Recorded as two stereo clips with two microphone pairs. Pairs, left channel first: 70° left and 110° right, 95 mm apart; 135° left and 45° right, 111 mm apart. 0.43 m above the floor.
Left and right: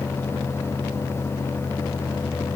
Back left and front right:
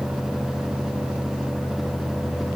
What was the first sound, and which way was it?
Only background noise.